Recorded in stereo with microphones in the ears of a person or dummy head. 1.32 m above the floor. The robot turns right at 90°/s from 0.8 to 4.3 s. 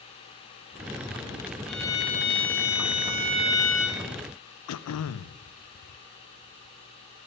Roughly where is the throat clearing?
Left.